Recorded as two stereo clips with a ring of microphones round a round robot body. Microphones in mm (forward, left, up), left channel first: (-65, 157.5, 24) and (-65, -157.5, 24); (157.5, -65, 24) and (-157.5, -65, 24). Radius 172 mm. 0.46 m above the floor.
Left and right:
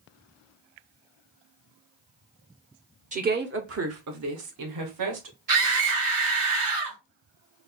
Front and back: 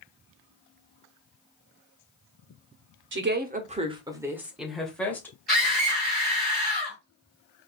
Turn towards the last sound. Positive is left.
turn(degrees=-90)